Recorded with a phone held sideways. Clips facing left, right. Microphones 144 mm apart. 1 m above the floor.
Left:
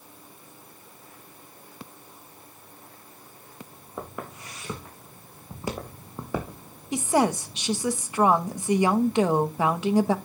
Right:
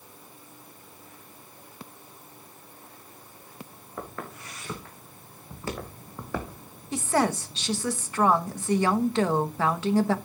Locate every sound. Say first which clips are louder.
4.0 s footsteps: left 1 dB; 15° left (ahead or behind), 4.5 m
6.9 s a woman speaking: left 2 dB; 15° left (ahead or behind), 1.0 m